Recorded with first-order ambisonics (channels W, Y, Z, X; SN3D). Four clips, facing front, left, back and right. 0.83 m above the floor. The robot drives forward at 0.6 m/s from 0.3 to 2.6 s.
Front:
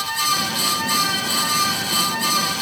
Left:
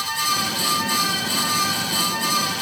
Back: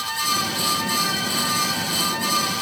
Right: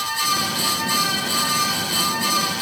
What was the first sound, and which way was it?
Only background noise.